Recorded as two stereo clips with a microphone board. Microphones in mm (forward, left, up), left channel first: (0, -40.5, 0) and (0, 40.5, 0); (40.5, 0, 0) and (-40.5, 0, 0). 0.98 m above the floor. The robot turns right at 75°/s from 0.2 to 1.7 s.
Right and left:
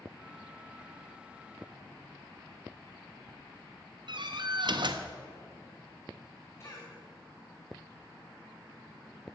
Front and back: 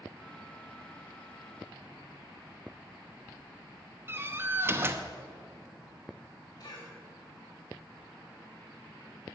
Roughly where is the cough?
Ahead right.